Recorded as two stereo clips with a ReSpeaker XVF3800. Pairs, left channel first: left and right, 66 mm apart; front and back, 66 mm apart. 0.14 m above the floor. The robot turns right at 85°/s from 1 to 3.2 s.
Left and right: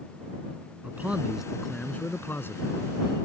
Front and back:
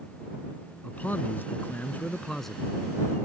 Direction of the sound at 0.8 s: 40° right.